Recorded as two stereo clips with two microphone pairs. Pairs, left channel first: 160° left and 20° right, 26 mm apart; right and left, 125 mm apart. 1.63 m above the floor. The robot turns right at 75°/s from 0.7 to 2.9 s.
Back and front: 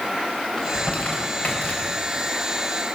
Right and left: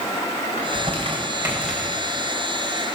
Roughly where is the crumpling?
Left.